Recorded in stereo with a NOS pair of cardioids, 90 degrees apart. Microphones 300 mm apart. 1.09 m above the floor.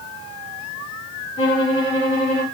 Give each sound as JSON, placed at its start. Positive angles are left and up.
{"t": 1.4, "sound": "a violin", "azimuth_deg": 45, "distance_m": 3.5}